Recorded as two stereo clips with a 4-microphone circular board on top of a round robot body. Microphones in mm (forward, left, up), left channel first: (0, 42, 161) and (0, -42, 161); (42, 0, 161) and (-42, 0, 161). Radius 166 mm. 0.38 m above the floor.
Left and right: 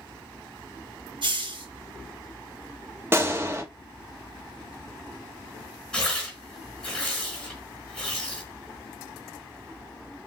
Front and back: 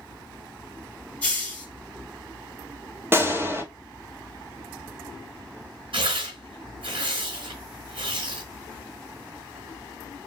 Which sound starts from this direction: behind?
Tearing paper, at 5.9 s.